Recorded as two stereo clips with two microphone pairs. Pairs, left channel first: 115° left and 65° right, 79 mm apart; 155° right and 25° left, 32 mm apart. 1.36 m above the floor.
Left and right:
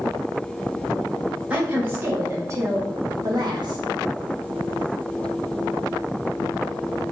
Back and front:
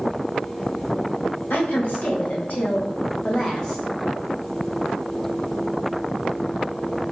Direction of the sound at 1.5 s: 135° right.